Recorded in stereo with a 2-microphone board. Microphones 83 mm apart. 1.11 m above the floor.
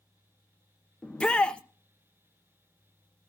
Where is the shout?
10° left (ahead or behind), 0.9 m.